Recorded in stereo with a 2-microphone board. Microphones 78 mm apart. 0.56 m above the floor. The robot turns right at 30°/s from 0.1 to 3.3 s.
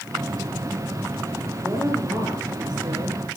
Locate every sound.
1.6 s a woman speaking: 145° right, 9 m; by 3.3 s 95° right, 9 m